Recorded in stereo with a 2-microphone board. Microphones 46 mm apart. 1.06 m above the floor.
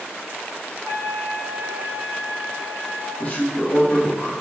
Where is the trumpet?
80° left, 1.2 m.